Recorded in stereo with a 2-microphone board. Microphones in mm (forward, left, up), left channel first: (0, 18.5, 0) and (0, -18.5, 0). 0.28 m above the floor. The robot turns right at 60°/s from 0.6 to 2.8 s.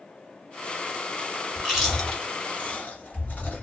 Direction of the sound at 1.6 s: 20° right (ahead or behind).